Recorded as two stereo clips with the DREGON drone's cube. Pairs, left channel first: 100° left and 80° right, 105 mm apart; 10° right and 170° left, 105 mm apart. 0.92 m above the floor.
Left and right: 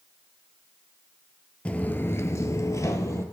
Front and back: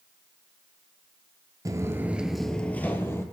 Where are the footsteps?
170° left, 1.0 m; by 3.2 s 45° left, 1.6 m.